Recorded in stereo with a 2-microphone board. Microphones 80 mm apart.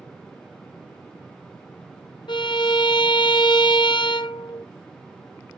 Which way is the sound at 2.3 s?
75° left (ahead or behind).